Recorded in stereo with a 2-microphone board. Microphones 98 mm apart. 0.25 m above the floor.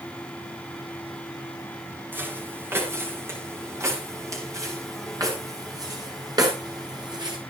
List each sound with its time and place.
2.1 s footsteps: 20° right (ahead or behind), 7.5 m; by 7.4 s 45° right (ahead or behind), 8 m